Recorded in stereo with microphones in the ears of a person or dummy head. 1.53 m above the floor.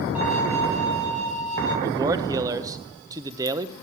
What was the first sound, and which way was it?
A violin, 5° right (ahead or behind).